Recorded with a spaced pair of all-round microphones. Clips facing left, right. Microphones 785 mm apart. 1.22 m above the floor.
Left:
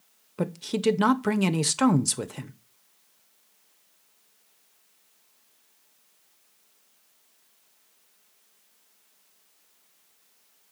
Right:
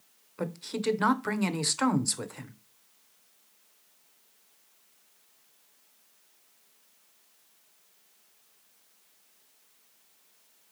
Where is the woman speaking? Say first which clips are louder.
Left 6 dB; 65° left (ahead or behind), 0.8 m.